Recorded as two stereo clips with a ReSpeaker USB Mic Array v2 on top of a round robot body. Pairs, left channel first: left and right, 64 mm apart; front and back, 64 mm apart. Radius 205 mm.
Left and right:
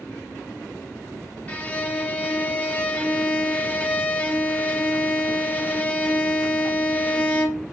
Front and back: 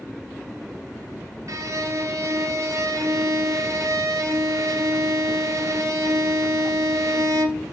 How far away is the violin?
About 0.9 m.